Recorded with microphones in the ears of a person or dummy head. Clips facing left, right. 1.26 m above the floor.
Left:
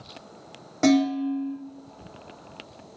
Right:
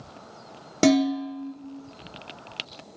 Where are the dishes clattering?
40° right (ahead or behind), 0.6 m.